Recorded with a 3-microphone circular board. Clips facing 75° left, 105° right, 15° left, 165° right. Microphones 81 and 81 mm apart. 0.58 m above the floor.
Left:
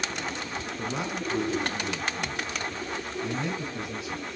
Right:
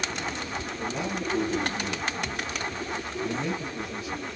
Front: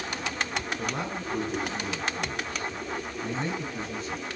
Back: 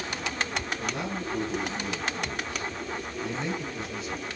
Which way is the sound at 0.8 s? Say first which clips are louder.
Right 1 dB, even; 65° left.